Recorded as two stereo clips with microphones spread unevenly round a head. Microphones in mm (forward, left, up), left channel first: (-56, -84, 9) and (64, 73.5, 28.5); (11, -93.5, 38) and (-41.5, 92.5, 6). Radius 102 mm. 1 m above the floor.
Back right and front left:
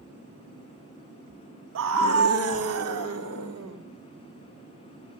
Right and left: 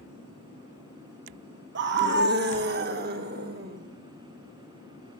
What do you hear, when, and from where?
1.8 s a scream: 80° left, 1.2 m; by 3.8 s 60° left, 4 m